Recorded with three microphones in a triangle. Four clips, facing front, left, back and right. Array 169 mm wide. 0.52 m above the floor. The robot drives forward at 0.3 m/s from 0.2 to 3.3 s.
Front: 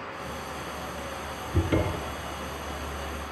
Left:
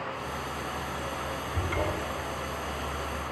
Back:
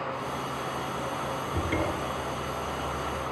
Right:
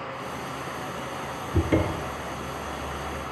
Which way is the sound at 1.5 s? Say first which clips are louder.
Right 8 dB, front 4 dB; 75° right.